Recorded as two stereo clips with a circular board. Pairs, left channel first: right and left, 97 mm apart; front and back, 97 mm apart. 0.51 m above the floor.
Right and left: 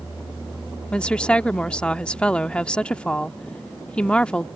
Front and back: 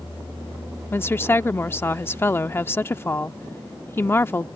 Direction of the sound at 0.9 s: 25° right.